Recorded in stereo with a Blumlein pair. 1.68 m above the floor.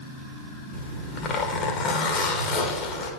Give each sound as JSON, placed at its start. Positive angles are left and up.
{"t": 0.7, "sound": "a zipper", "azimuth_deg": 30, "distance_m": 1.4}